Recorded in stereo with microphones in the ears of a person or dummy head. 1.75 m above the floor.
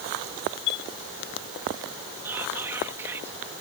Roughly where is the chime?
Left.